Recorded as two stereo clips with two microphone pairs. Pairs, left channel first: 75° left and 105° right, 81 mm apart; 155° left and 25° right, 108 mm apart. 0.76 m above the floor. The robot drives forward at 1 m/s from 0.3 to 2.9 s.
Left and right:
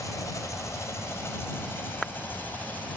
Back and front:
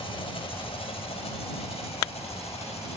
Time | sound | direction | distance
0.0 | an engine running | 125° left | ?